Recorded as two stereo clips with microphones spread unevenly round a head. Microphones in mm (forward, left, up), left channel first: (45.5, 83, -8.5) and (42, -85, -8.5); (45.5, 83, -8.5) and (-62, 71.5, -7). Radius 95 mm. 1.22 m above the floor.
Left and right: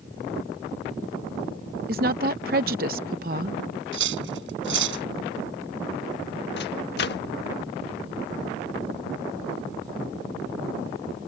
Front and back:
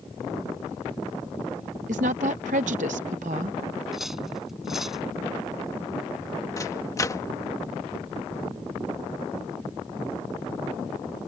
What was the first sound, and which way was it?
A woman speaking, 140° right.